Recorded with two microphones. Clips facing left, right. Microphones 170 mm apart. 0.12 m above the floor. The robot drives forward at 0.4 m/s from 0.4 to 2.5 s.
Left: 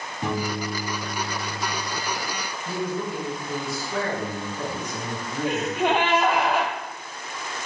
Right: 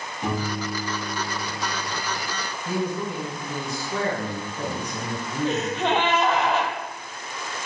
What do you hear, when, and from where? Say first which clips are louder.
0.2 s a piano: even; 25° left (ahead or behind), 2.0 m; by 1.9 s 35° left (ahead or behind), 1.5 m
2.6 s a man speaking: right 1 dB; 15° right (ahead or behind), 1.6 m
5.5 s a gasp: left 1 dB; 10° left (ahead or behind), 0.6 m